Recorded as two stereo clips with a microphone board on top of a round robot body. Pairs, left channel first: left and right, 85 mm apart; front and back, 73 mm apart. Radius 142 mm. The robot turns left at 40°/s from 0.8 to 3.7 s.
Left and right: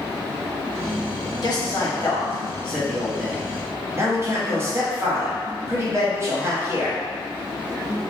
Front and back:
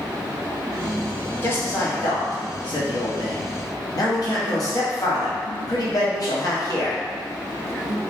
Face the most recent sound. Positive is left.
turn(degrees=-30)